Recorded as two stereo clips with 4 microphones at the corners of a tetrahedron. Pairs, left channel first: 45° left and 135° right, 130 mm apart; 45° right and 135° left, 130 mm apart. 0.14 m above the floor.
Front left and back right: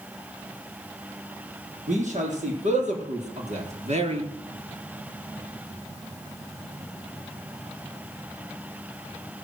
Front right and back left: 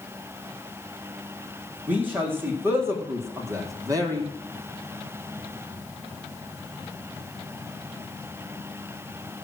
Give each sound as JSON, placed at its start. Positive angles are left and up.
{"t": 1.9, "sound": "a man speaking", "azimuth_deg": -150, "distance_m": 5.5}